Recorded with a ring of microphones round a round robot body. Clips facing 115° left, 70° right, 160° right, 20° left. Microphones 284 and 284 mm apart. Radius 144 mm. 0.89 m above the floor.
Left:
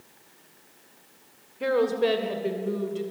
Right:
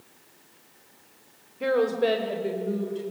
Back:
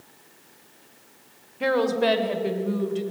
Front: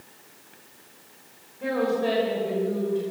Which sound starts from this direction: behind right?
A woman speaking, at 1.6 s.